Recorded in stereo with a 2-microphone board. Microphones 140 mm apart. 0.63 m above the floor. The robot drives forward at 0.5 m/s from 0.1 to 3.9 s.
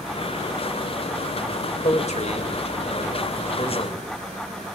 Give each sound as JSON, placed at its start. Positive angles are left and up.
{"t": 1.8, "sound": "a man speaking", "side_deg": 55, "distance_m": 3.0}